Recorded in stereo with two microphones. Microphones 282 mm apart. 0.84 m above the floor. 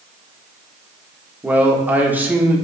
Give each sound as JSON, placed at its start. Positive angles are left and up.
{"t": 1.4, "sound": "a man speaking", "side_deg": -5, "distance_m": 1.1}